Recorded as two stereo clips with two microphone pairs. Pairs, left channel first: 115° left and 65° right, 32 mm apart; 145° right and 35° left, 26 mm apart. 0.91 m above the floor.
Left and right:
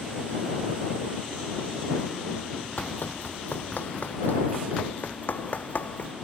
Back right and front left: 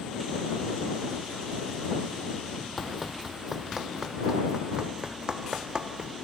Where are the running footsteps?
120° left; by 6.1 s 85° left.